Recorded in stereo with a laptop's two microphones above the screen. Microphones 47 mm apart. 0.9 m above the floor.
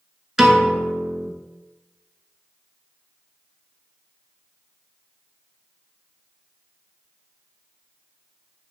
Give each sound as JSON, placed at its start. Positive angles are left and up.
{"t": 0.4, "sound": "a piano", "side_deg": 0, "distance_m": 1.2}